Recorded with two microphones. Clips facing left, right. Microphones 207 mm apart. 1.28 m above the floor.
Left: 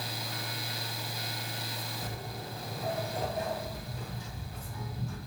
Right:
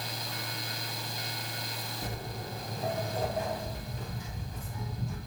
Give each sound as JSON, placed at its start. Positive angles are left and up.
{"t": 2.0, "sound": "footsteps", "side_deg": -45, "distance_m": 2.0}